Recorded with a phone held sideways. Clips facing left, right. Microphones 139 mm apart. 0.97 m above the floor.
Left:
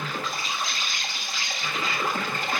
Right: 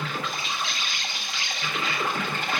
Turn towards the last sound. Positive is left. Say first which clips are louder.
# even
turn(degrees=40)  # may be behind; listen again after turning